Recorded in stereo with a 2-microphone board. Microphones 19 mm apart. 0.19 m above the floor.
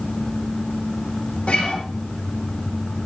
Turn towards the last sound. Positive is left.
turn(degrees=80)